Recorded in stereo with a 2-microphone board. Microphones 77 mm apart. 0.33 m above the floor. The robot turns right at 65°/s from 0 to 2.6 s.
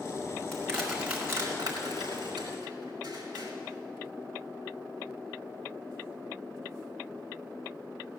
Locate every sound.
0.5 s crushing: 20° left (ahead or behind), 3 m; by 3.5 s 60° right (ahead or behind), 3 m